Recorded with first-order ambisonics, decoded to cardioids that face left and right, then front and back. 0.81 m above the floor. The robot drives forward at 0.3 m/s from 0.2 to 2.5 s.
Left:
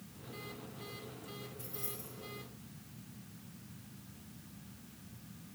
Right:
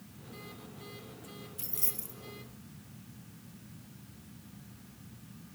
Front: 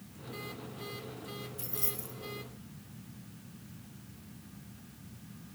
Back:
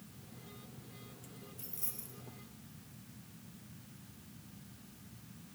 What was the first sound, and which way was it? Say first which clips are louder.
Keys jangling: right 3 dB, front 10 dB; 65° right.